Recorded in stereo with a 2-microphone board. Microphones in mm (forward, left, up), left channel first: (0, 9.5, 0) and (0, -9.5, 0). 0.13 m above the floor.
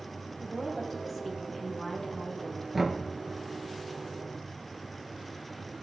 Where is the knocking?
15° right (ahead or behind), 2 m.